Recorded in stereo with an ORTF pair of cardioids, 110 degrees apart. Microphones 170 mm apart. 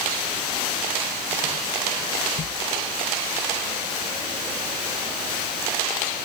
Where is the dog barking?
I don't hear a dog barking.